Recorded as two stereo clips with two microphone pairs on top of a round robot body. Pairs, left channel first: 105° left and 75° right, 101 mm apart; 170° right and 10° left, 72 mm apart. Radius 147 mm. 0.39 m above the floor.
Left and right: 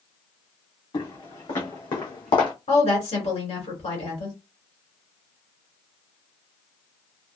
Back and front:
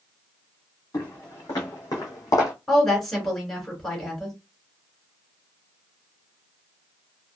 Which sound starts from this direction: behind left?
Footsteps, at 0.9 s.